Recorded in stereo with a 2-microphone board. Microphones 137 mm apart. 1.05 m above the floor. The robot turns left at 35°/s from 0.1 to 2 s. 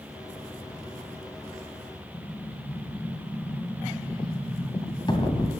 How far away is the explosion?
About 2.5 m.